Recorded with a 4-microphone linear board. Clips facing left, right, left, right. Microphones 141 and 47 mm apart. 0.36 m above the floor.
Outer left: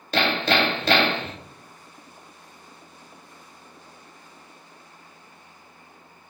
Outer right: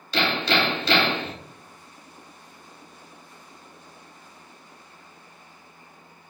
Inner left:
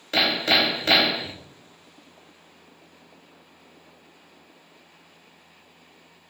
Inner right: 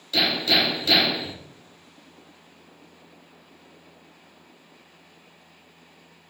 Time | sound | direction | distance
0.1 | hammering | 55° left (ahead or behind) | 0.9 m